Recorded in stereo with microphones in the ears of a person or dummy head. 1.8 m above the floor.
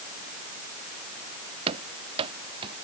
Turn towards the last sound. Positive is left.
turn(degrees=-30)  # may be behind; listen again after turning